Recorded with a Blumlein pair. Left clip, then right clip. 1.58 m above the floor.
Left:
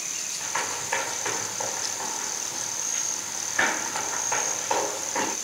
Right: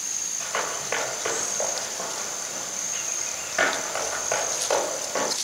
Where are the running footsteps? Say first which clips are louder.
Even; 30° right, 5.5 m.